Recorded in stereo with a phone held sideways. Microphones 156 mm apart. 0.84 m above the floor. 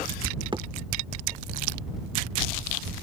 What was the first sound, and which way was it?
A thud, 30° right (ahead or behind).